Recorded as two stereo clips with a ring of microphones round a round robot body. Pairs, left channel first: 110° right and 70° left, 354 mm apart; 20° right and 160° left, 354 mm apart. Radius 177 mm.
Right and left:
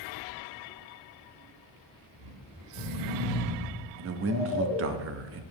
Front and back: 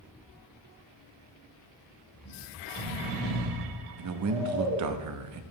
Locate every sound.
2.1 s snoring: 65° left, 3 m
4.0 s a man speaking: 120° left, 0.7 m